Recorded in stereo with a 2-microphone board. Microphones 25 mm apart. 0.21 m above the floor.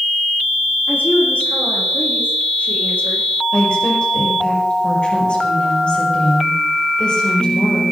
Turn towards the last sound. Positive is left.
turn(degrees=35)  # may be behind; listen again after turning